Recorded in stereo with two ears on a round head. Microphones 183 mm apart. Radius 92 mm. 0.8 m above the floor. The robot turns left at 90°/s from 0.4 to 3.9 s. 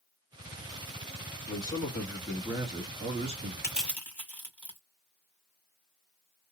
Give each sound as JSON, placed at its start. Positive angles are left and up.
{"t": 1.5, "sound": "a man speaking", "azimuth_deg": 55, "distance_m": 1.2}
{"t": 3.6, "sound": "crushing", "side_deg": -15, "distance_m": 1.8}